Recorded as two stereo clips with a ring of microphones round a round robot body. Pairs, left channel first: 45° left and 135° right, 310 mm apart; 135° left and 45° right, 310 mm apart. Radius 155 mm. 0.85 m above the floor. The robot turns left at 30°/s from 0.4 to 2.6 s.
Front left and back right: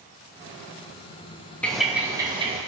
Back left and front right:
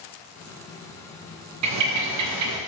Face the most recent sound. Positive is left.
turn(degrees=-70)